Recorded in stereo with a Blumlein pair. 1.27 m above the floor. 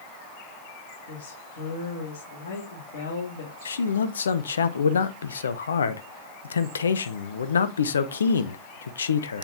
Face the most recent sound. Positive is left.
turn(degrees=70)